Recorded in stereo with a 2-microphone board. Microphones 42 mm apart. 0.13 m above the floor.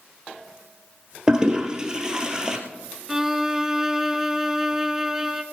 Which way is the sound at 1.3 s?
20° right (ahead or behind).